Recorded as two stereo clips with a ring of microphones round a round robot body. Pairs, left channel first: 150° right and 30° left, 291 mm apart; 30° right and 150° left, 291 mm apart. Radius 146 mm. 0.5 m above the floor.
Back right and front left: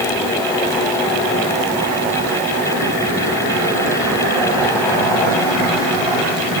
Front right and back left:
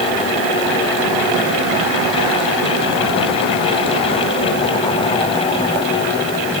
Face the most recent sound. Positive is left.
No sound to turn to.